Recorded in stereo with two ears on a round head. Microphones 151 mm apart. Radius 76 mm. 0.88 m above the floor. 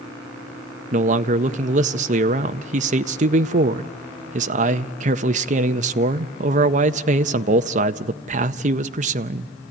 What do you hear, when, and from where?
0.9 s a man speaking: 45° right (ahead or behind), 0.5 m